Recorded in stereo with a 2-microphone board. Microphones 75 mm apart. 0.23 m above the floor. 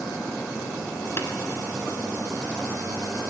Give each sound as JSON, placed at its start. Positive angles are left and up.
{"t": 1.2, "sound": "tapping", "side_deg": 35, "distance_m": 1.2}